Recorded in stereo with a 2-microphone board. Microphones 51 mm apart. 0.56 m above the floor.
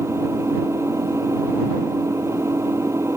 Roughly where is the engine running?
Right.